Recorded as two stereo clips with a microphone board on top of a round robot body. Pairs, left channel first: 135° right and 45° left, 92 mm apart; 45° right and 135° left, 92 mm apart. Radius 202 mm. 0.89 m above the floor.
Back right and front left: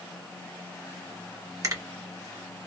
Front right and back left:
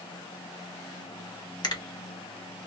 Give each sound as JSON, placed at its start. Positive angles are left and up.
{"t": 1.6, "sound": "a finger snap", "azimuth_deg": -5, "distance_m": 1.4}